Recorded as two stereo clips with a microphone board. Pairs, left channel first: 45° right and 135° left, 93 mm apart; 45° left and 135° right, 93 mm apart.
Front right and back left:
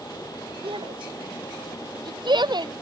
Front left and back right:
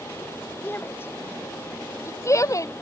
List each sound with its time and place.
0.6 s a shout: 115° left; by 2.7 s 100° left